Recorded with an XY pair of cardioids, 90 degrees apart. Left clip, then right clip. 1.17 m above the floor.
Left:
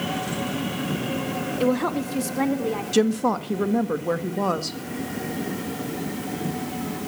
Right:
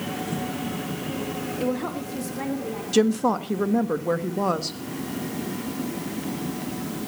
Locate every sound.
1.6 s a woman speaking: 45° left, 1.8 m; by 2.8 s 60° left, 3 m
2.9 s a woman speaking: straight ahead, 1.6 m